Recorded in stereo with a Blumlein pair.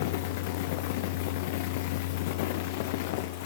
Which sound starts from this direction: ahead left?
A fan, at 0.0 s.